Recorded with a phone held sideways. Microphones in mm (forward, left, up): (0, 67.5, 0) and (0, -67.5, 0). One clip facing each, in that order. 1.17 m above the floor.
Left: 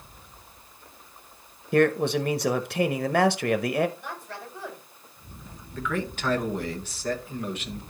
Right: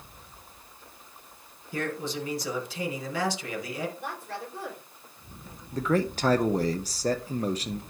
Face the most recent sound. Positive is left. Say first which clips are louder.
# right 5 dB
turn(degrees=-40)  # may be behind; listen again after turning